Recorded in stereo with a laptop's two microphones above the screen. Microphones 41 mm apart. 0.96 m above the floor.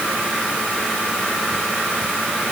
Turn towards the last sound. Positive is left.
No sound to turn to.